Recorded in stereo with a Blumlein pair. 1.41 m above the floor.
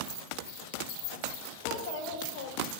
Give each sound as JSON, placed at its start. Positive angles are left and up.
{"t": 1.6, "sound": "a child speaking", "azimuth_deg": 40, "distance_m": 4.5}